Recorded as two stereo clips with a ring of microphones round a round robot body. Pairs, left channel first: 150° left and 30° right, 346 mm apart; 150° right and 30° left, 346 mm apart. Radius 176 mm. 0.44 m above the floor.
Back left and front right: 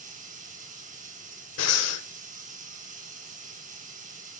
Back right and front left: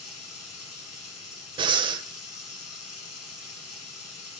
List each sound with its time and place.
0.0 s running water: 100° right, 2 m
1.6 s breathing: 105° left, 1.2 m